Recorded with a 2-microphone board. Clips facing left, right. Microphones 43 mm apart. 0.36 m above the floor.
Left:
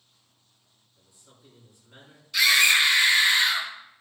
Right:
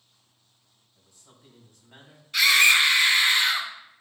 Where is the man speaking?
55° right (ahead or behind), 3 m.